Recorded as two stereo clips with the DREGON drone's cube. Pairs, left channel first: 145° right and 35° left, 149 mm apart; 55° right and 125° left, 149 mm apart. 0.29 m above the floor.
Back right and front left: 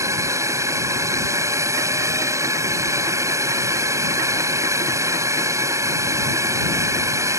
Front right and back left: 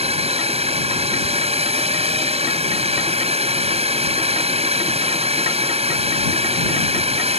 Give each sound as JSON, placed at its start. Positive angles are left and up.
{"t": 0.0, "sound": "a drone", "azimuth_deg": 100}